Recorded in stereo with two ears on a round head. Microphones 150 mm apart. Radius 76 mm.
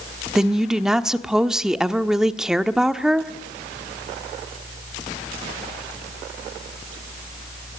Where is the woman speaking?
5° right (ahead or behind), 1.2 m.